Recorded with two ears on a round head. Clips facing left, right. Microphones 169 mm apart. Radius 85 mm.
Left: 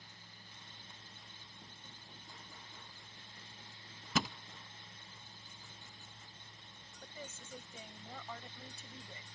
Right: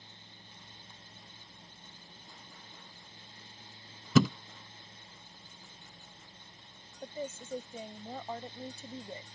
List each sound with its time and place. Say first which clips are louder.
4.2 s a thud: right 12 dB; 75° right (ahead or behind)
7.0 s a woman speaking: right 11 dB; 30° right (ahead or behind)